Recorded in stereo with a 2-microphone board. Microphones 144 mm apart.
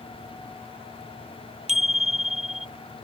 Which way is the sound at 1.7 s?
50° right (ahead or behind).